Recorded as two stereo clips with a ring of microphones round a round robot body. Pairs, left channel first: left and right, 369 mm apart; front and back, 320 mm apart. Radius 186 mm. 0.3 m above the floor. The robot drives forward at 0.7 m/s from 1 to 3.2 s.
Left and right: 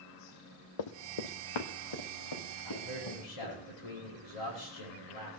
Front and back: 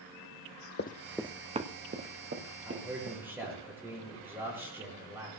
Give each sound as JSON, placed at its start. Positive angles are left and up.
{"t": 0.8, "sound": "running footsteps", "azimuth_deg": 60, "distance_m": 0.9}
{"t": 2.6, "sound": "a man speaking", "azimuth_deg": 95, "distance_m": 7.0}